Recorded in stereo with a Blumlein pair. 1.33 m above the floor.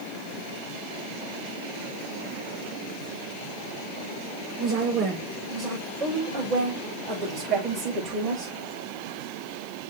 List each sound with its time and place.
4.6 s a woman speaking: 30° right, 5.5 m; by 8.5 s 10° right, 5.5 m